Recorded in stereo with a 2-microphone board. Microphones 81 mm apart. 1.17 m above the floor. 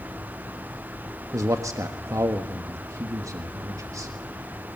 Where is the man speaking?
40° right (ahead or behind), 1.4 m.